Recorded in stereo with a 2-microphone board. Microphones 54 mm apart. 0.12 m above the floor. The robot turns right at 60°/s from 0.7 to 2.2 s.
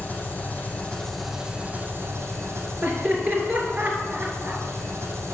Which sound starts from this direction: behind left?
An engine running, at 0.0 s.